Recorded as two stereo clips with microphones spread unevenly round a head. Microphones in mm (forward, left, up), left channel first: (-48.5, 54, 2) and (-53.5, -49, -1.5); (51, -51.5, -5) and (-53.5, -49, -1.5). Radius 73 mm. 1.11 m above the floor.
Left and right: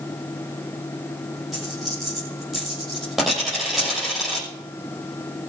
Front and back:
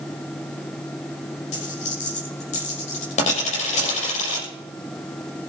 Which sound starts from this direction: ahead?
A dropped coin, at 1.5 s.